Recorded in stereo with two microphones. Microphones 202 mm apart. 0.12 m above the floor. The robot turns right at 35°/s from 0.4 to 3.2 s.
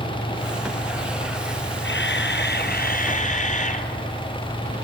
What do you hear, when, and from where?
1.8 s a camera shutter: 90° left, 1.8 m; by 3.9 s 135° left, 1.8 m